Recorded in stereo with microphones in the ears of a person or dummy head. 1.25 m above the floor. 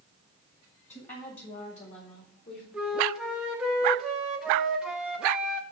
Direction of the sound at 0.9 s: 35° left (ahead or behind).